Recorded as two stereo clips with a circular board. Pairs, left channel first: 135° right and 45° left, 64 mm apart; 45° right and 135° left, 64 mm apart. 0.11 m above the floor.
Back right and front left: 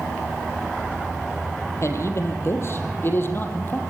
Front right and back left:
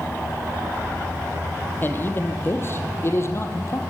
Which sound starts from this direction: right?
A man speaking, at 1.8 s.